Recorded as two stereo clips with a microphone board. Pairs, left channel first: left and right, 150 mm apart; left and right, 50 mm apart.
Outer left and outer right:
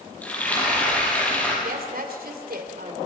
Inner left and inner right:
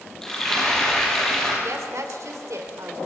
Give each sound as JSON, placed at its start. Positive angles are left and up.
{"t": 0.2, "sound": "frying", "side_deg": 10, "distance_m": 7.5}
{"t": 1.6, "sound": "a woman speaking", "side_deg": -75, "distance_m": 3.0}